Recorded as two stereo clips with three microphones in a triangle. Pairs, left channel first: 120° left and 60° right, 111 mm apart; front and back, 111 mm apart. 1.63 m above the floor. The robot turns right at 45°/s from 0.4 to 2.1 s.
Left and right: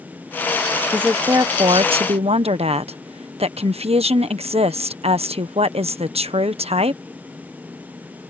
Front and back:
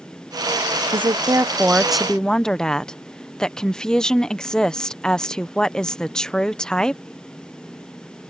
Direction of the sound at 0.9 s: 140° right.